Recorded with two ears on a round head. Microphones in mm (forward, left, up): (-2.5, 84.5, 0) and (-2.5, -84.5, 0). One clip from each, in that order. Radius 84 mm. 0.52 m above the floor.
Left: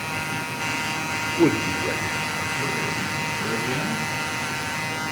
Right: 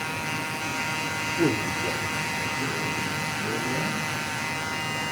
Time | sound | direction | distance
1.4 | a man speaking | 45° left (ahead or behind) | 1.4 m